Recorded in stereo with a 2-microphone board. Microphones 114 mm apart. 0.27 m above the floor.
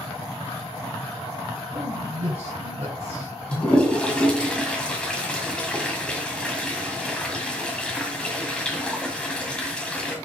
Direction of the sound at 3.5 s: 10° left (ahead or behind).